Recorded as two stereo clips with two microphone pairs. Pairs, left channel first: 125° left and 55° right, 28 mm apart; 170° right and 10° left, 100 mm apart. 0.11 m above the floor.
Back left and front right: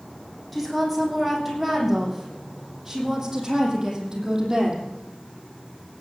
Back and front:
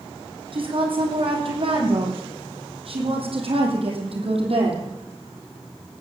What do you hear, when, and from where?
0.5 s a woman speaking: 40° left, 5.5 m; by 4.9 s 10° left, 5 m